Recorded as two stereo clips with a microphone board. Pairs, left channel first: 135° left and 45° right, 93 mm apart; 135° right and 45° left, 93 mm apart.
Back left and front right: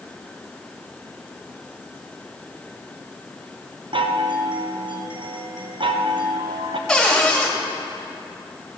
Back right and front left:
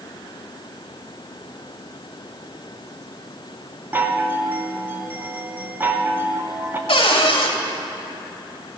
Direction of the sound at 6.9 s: 140° right.